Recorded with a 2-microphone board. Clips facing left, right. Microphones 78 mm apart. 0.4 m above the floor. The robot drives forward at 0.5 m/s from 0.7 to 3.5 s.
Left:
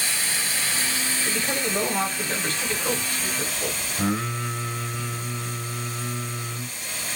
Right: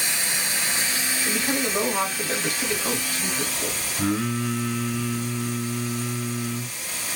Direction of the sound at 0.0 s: 20° right (ahead or behind).